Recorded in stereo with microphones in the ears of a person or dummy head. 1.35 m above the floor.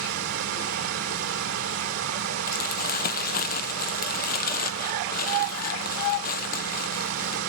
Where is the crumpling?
40° left (ahead or behind), 0.9 m.